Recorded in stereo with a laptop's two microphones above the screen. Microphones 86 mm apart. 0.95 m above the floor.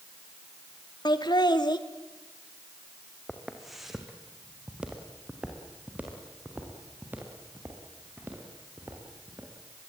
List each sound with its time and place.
1.1 s laughter: 55° left (ahead or behind), 1.7 m
3.3 s footsteps: 5° left (ahead or behind), 3.5 m; by 9.5 s 25° right (ahead or behind), 8.5 m